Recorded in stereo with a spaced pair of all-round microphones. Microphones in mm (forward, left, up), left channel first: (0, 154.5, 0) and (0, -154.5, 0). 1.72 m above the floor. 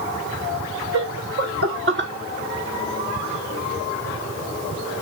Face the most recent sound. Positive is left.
turn(degrees=-35)  # may be behind; listen again after turning